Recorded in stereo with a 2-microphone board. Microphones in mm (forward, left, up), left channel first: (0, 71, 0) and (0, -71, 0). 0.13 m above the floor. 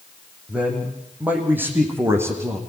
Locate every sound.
0.5 s a man speaking: 10° right (ahead or behind), 6 m; by 2.6 s 20° right (ahead or behind), 5.5 m